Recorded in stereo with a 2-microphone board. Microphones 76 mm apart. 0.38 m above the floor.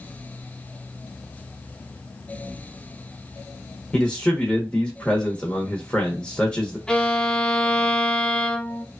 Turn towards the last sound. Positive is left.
turn(degrees=10)  # may be behind; listen again after turning